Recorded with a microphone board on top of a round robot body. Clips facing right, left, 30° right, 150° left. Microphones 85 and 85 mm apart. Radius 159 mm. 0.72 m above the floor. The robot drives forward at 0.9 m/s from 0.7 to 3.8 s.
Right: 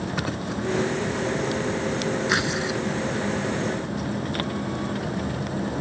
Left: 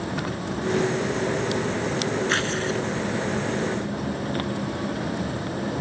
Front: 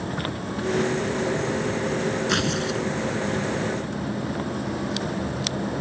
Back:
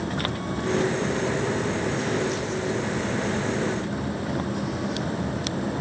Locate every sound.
2.3 s tearing paper: 15° right